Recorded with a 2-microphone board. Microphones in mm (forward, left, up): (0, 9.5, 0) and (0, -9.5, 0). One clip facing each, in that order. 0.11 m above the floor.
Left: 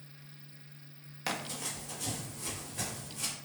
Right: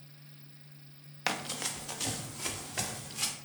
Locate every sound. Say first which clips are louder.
1.3 s running footsteps: right 3 dB; 20° right (ahead or behind), 0.7 m; by 3.3 s 60° right (ahead or behind), 1.5 m